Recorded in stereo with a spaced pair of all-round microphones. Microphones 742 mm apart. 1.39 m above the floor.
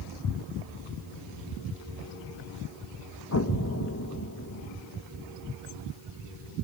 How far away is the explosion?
About 1.5 m.